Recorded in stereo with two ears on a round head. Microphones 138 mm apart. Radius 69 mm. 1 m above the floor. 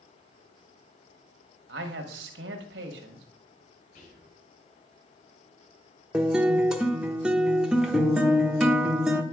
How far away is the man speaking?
About 1.4 m.